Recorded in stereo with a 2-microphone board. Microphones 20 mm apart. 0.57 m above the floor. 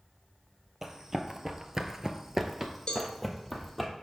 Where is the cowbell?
45° left (ahead or behind), 1.3 m.